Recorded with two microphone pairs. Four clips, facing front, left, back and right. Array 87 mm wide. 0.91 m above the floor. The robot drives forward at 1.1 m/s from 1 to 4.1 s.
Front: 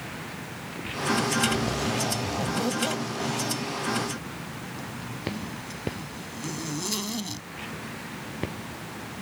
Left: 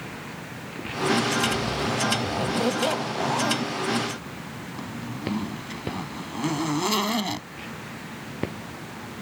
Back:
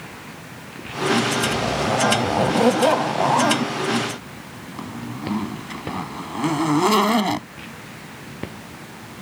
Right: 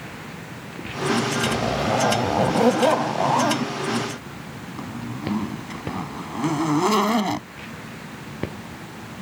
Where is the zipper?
120° right; by 7.5 s 150° right.